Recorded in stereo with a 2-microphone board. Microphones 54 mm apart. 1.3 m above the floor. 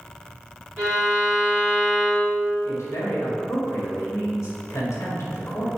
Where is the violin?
40° right (ahead or behind), 1.9 m.